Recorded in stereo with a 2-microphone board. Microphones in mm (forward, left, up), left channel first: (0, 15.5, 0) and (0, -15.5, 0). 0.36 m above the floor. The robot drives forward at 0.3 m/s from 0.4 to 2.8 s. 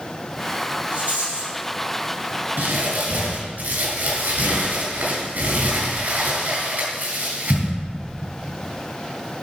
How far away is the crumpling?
About 3.5 m.